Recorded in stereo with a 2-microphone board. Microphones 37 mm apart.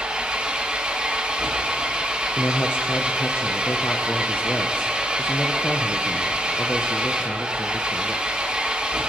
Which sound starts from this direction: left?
A man speaking, at 2.4 s.